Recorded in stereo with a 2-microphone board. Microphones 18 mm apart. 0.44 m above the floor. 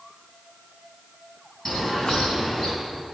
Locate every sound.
1.6 s a bird: 45° left (ahead or behind), 3 m